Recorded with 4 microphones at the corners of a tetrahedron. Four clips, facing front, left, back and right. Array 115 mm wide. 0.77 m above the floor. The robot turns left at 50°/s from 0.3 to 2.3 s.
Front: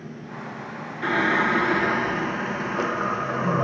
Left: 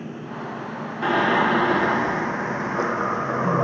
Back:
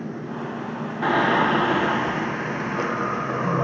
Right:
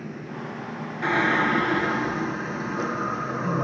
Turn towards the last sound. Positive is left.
turn(degrees=85)